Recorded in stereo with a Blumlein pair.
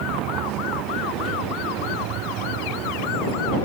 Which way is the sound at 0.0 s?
35° right.